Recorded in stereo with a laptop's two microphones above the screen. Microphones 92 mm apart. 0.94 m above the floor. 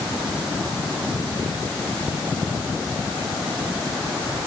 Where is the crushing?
No crushing in this recording.